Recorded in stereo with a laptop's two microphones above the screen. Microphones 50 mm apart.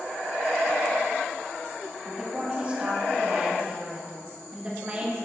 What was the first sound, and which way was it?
A woman speaking, 25° right (ahead or behind).